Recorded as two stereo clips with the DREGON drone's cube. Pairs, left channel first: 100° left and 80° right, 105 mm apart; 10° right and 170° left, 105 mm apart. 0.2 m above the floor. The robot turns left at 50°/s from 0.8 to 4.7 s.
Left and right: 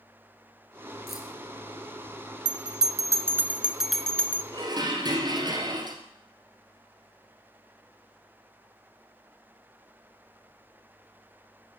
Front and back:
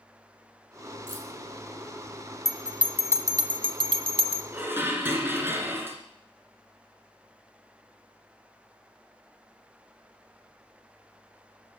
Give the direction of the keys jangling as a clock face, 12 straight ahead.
12 o'clock.